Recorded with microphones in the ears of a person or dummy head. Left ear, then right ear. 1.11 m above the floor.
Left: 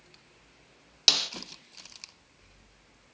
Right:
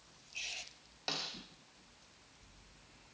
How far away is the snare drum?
About 1.0 m.